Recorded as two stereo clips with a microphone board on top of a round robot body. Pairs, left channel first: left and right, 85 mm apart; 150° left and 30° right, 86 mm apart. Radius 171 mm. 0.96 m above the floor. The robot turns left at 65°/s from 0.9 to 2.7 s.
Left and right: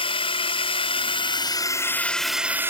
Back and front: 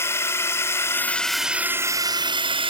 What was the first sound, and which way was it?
A drone, 90° left.